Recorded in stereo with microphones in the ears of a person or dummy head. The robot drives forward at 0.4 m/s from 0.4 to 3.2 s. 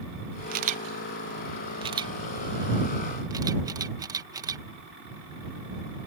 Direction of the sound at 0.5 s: 40° right (ahead or behind).